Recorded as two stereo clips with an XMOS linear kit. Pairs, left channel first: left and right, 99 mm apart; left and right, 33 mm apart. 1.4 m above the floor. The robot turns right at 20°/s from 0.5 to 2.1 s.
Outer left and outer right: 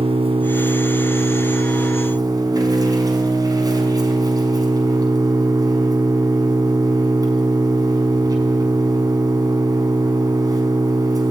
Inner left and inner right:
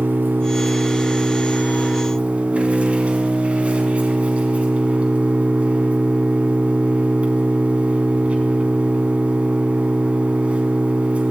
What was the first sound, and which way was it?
An engine running, 70° right.